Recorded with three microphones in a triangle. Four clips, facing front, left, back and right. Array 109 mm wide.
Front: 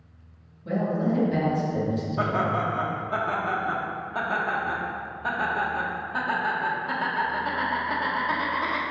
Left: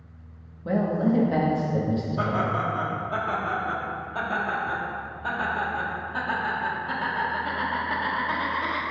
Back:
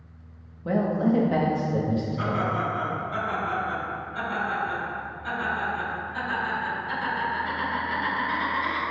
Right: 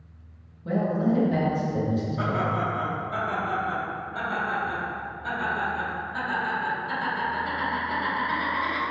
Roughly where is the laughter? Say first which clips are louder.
Left 1 dB, front 2 dB; ahead left.